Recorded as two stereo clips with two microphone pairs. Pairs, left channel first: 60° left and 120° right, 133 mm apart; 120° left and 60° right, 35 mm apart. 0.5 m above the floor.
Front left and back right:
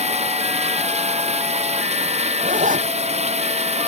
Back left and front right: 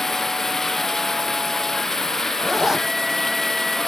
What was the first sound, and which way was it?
Running water, 160° right.